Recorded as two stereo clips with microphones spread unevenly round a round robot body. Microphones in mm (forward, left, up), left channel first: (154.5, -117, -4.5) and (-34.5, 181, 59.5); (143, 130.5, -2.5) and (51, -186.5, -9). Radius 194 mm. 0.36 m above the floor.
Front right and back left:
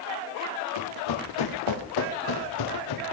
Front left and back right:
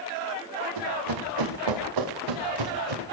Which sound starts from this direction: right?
Running footsteps, at 0.8 s.